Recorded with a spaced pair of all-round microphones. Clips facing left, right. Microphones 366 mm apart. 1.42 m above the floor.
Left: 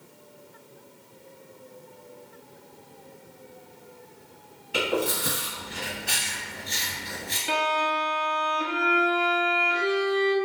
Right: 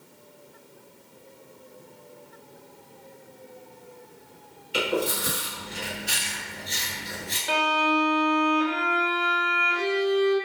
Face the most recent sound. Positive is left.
turn(degrees=40)  # may be behind; listen again after turning